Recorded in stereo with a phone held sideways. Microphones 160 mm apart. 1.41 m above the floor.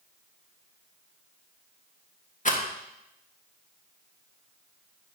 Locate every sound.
2.5 s a rattle: 50° left (ahead or behind), 1.4 m